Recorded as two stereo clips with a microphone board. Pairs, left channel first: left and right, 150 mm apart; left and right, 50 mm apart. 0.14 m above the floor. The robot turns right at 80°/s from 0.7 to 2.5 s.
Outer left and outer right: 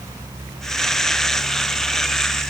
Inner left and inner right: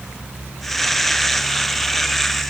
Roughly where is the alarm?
I don't hear an alarm.